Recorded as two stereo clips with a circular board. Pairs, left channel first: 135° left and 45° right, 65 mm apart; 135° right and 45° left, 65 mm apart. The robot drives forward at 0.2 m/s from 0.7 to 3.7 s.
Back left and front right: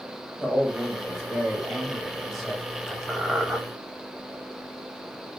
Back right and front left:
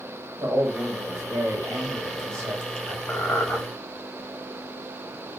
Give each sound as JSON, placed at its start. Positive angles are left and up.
{"t": 0.4, "sound": "a man speaking", "azimuth_deg": 35, "distance_m": 1.1}
{"t": 3.1, "sound": "a squeak", "azimuth_deg": -115, "distance_m": 0.6}